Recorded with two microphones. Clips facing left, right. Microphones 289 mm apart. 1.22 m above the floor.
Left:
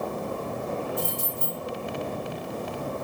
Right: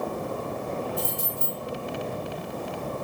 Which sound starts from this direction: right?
Keys jangling, at 1.0 s.